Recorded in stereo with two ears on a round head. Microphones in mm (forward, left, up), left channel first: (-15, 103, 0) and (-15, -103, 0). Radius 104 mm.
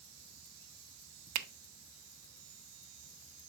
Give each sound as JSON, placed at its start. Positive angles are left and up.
{"t": 1.4, "sound": "a finger snap", "side_deg": -75, "distance_m": 0.7}